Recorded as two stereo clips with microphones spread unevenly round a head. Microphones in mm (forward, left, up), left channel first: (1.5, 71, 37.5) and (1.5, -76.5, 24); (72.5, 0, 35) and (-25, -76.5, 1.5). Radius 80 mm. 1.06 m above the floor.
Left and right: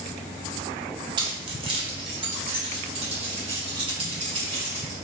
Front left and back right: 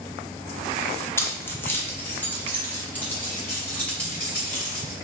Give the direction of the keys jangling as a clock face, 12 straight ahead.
1 o'clock.